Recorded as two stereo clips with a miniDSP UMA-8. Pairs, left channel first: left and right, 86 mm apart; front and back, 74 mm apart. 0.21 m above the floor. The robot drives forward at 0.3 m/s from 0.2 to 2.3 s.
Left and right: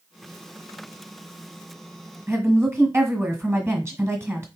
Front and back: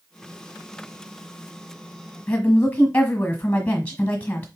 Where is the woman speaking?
55° right, 1.3 m.